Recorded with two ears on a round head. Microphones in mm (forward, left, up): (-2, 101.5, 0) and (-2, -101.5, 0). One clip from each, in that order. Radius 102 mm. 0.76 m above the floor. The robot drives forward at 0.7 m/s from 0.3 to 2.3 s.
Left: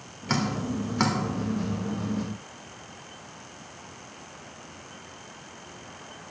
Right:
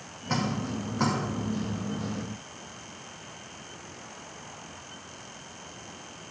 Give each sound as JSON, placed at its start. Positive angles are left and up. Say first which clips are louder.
{"t": 0.3, "sound": "dripping", "louder": "left 2 dB", "side_deg": 70, "distance_m": 2.0}